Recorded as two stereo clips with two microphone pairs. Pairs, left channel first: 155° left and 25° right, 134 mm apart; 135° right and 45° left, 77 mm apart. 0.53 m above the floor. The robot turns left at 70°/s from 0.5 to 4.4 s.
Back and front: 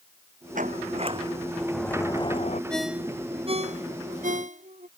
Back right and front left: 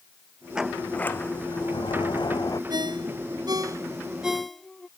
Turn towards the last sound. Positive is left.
turn(degrees=-45)